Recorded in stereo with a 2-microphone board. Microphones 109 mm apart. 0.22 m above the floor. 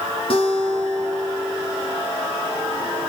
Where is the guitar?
60° left (ahead or behind), 1.8 m.